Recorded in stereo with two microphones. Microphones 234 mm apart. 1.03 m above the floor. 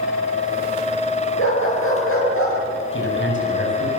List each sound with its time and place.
1.4 s a dog barking: 65° left (ahead or behind), 9.5 m; by 2.6 s 70° left (ahead or behind), 8.5 m
2.9 s a man speaking: 60° left (ahead or behind), 7.5 m